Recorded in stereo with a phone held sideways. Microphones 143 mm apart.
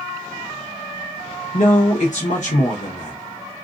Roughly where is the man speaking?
Left.